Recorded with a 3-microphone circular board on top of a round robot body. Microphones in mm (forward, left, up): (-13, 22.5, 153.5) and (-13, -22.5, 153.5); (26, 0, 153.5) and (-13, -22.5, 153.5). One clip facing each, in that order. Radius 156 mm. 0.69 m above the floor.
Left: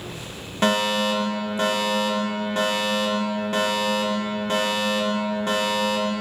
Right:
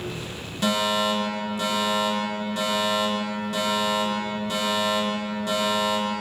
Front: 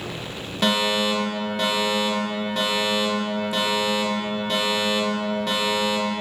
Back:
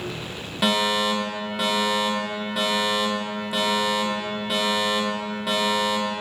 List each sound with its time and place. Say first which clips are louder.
0.6 s a fire alarm: left 2 dB, even; 125° left, 4 m